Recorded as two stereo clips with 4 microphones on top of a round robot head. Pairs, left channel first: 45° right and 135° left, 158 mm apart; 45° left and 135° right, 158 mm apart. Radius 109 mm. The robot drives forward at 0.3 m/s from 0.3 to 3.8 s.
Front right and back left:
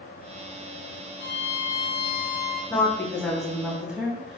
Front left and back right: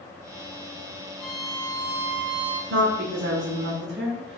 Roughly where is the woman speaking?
Behind right.